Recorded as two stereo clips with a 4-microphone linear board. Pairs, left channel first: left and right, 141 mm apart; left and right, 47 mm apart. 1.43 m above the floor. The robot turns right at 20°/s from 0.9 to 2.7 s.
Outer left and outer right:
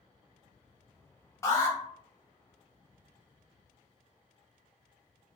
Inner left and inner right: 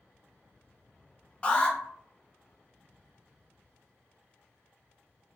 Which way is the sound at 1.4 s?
20° left (ahead or behind).